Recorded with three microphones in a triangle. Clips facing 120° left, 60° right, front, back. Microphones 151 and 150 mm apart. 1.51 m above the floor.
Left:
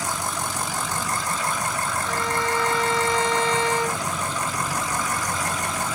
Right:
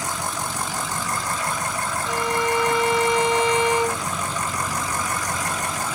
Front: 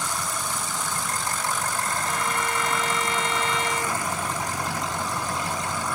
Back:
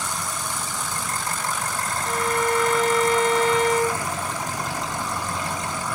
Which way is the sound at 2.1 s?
135° right.